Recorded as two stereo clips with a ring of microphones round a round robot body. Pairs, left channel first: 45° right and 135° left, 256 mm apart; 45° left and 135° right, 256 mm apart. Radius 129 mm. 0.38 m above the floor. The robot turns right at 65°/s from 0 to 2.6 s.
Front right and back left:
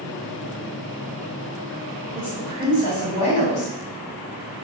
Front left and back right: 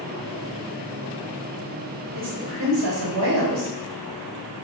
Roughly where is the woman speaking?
Behind right.